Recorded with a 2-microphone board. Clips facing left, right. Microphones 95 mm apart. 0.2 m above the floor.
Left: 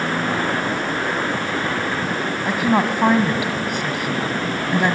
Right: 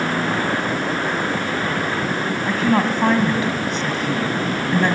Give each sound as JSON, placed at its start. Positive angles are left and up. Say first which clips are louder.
{"t": 2.5, "sound": "a woman speaking", "louder": "even", "side_deg": 10, "distance_m": 1.5}